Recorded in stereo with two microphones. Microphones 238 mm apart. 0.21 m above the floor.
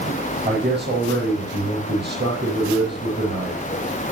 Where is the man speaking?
45° right (ahead or behind), 8.5 m.